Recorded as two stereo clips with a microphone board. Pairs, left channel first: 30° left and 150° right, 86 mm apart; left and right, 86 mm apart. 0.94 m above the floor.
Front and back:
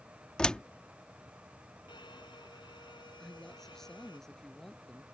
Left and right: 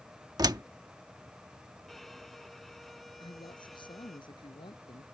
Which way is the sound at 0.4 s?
50° right.